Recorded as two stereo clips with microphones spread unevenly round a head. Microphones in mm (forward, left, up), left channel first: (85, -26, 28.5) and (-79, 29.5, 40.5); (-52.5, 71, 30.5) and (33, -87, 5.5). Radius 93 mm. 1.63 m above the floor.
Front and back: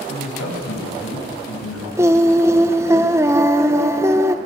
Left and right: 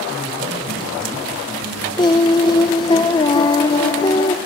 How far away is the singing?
About 0.7 m.